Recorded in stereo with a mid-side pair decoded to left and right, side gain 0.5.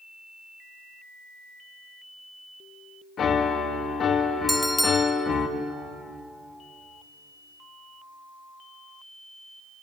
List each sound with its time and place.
3.2 s a piano: 50° left, 1.8 m
4.5 s a bell: 5° right, 1.4 m